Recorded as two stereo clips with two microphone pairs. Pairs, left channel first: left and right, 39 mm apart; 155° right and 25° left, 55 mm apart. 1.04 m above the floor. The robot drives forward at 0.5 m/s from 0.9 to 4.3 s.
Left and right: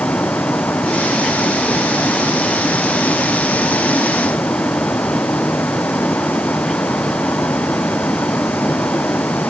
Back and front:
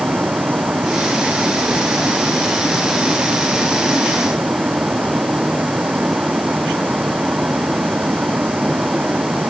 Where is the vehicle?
85° left.